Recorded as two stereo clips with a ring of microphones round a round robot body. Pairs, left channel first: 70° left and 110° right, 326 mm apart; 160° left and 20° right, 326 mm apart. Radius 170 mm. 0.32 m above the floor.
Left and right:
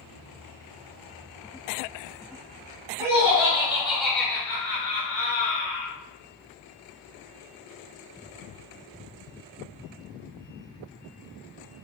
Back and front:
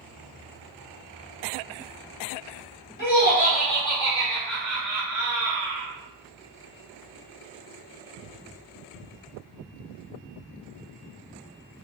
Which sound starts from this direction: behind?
Laughter, at 3.0 s.